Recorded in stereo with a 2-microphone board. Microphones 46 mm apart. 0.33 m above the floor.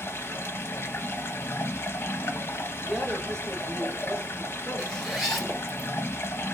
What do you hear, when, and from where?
0.0 s running water: 55° left (ahead or behind), 0.7 m
2.8 s a woman speaking: 15° left (ahead or behind), 0.9 m
4.8 s a zipper: centre (ahead or behind), 1.0 m